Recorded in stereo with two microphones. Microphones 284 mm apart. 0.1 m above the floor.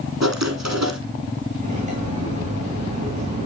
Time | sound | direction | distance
0.2 | writing | 65° right (ahead or behind) | 2.5 m
1.6 | cutlery clinking | 25° right (ahead or behind) | 4.5 m